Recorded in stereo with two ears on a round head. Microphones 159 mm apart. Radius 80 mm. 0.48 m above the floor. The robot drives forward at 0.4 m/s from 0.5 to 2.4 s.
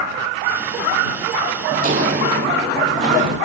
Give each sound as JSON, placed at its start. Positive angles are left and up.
{"t": 1.7, "sound": "footsteps", "side_deg": -45, "distance_m": 0.6}